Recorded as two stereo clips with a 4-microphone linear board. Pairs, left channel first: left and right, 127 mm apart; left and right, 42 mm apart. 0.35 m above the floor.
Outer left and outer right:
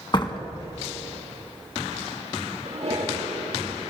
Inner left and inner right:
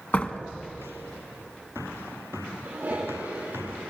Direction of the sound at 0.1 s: 40° left (ahead or behind).